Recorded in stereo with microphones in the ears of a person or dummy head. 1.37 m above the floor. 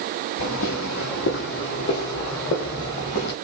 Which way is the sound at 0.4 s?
60° left (ahead or behind).